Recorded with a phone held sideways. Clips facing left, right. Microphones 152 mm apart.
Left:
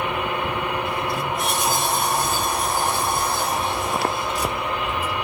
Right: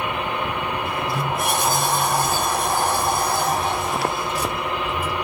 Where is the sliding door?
45° right (ahead or behind), 1.8 m.